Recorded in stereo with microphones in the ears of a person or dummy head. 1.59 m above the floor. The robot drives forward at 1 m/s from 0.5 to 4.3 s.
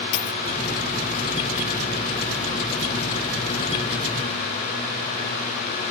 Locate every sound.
0.1 s a dropped coin: 70° left (ahead or behind)